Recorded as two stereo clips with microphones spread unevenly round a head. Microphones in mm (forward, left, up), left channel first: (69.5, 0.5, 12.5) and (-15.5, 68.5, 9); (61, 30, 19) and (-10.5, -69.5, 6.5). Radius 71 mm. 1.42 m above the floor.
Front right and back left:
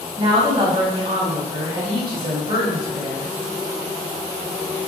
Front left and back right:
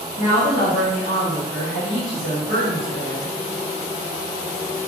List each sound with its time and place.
0.2 s a woman speaking: 95° left, 1.1 m